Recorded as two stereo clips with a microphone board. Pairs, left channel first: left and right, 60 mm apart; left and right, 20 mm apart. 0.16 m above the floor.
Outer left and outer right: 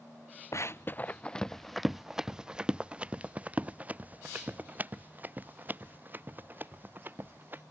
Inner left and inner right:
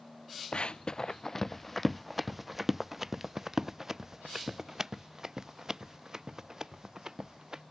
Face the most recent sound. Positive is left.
turn(degrees=-35)  # may be behind; listen again after turning